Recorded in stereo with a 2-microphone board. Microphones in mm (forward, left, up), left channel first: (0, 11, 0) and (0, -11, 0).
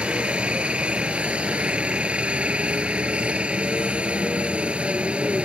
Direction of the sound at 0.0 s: 55° right (ahead or behind).